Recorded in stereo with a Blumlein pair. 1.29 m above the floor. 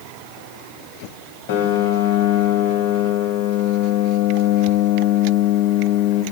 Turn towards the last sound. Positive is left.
turn(degrees=50)